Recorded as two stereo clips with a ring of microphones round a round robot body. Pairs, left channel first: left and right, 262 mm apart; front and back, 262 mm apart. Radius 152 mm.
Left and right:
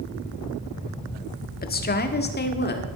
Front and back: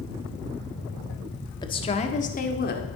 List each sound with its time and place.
1.6 s a woman speaking: 65° left, 1.2 m; by 2.9 s 45° left, 1.8 m